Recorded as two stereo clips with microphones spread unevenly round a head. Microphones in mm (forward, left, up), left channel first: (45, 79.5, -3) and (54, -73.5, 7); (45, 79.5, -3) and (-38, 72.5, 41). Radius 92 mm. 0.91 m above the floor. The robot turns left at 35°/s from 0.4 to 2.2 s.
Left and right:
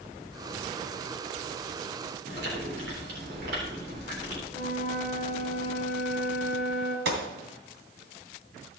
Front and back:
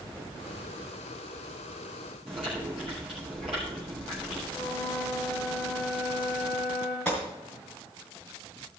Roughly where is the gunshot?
Right.